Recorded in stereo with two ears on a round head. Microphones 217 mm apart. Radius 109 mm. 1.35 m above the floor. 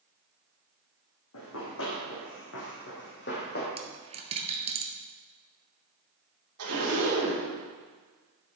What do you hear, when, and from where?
1.3 s running footsteps: 65° left (ahead or behind), 3.5 m; by 3.7 s 40° left (ahead or behind), 2.5 m
3.8 s a dropped coin: 25° right (ahead or behind), 1.4 m
6.6 s a zipper: 65° right (ahead or behind), 3.5 m